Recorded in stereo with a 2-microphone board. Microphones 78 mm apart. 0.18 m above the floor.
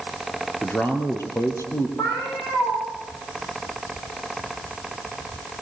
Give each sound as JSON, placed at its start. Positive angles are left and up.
{"t": 0.6, "sound": "a man speaking", "side_deg": 20, "distance_m": 3.0}
{"t": 2.0, "sound": "a cat meowing", "side_deg": 45, "distance_m": 10.0}